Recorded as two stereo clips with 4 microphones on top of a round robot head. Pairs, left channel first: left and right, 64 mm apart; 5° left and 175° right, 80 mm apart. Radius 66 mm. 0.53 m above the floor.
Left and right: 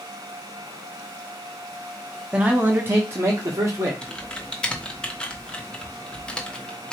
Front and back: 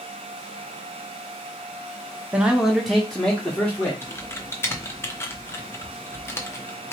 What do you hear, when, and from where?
2.3 s a man speaking: 135° right, 1.0 m; by 3.9 s 65° right, 1.6 m
4.0 s typing on a keyboard: 25° left, 1.1 m